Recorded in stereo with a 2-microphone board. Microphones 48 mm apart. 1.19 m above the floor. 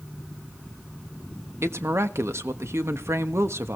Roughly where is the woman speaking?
Right.